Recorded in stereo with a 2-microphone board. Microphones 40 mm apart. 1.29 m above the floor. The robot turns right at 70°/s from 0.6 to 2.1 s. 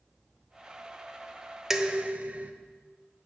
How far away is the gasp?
I don't hear a gasp.